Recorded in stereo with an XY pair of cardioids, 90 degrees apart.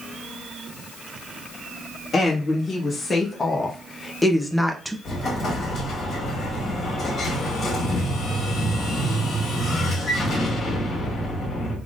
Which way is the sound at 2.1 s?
50° left.